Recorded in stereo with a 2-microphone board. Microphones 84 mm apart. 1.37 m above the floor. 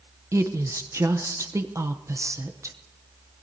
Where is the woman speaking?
40° right (ahead or behind), 0.7 m.